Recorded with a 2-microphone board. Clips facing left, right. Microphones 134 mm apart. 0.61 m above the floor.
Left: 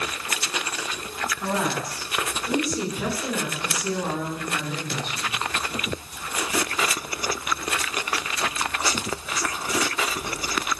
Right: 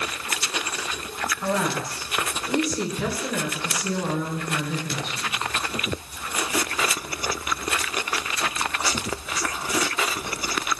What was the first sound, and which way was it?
A woman speaking, 15° left (ahead or behind).